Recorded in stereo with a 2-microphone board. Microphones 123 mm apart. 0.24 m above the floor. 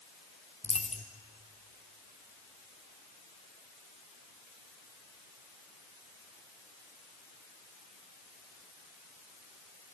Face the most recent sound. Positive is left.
turn(degrees=60)  # may be behind; listen again after turning